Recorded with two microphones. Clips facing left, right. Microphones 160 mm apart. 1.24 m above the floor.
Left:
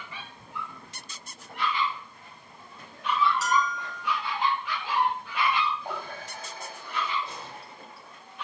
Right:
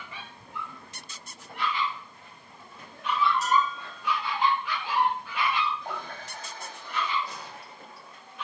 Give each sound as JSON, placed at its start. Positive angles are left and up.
{"t": 3.4, "sound": "a bell", "side_deg": 75, "distance_m": 2.0}
{"t": 5.8, "sound": "a running tap", "side_deg": 10, "distance_m": 6.0}
{"t": 7.2, "sound": "a gunshot", "side_deg": 25, "distance_m": 6.0}